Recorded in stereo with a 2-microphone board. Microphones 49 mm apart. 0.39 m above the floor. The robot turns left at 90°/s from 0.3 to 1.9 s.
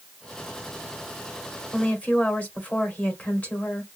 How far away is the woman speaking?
About 1.5 m.